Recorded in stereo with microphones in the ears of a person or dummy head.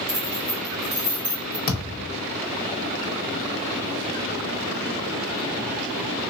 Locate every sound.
0.1 s keys jangling: 30° right (ahead or behind), 2 m; by 1.6 s 10° right (ahead or behind), 1.9 m
1.7 s a thud: 45° left (ahead or behind), 0.9 m